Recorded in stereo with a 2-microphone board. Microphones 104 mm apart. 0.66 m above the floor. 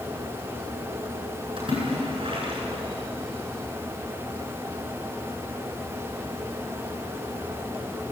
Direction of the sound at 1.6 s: 60° right (ahead or behind).